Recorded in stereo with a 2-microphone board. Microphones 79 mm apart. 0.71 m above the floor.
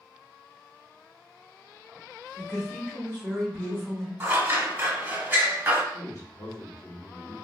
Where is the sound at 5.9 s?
45° left (ahead or behind), 1.6 m.